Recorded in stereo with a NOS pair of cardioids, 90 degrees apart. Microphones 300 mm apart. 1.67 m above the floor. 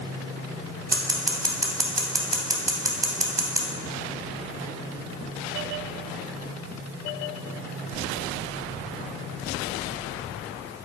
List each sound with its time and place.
0.9 s scissors: 10° right, 0.6 m